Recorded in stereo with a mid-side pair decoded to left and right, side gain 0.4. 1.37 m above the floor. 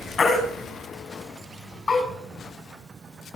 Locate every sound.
0.2 s a baby crying: 40° left, 5.5 m